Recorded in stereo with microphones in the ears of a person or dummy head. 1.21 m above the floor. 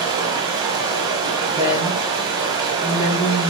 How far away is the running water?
About 1.6 m.